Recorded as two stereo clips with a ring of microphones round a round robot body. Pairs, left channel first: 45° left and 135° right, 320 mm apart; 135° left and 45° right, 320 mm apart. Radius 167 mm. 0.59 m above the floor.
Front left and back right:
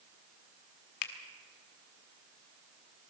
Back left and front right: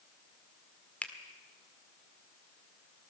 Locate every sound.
1.0 s a finger snap: 50° left, 1.8 m